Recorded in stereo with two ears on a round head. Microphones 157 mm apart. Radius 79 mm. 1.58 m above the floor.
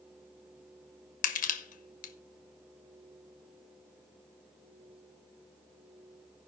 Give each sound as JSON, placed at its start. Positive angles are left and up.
{"t": 1.2, "sound": "crushing", "side_deg": 45, "distance_m": 1.1}